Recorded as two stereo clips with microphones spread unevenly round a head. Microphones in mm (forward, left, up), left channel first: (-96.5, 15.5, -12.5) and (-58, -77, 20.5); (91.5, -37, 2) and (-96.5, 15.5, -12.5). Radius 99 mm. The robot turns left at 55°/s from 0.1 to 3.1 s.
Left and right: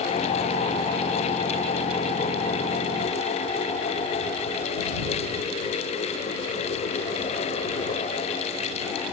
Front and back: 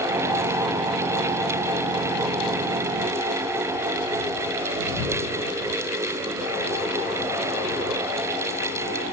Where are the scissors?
No scissors in this recording.